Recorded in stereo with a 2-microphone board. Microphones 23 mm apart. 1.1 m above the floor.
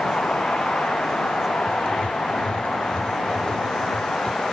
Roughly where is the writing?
Left.